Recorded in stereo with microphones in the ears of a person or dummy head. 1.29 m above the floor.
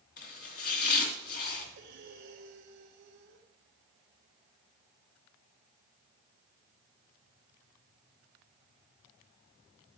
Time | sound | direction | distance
0.2 | chopping | 50° left (ahead or behind) | 2.5 m
1.8 | breathing | 50° right (ahead or behind) | 1.6 m